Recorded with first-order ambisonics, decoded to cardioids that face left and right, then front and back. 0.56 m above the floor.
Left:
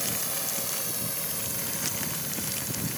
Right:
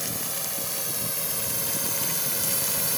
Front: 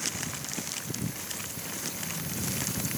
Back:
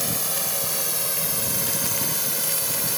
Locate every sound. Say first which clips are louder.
0.0 s a drone: even, back 6 dB; straight behind; by 3.0 s 140° right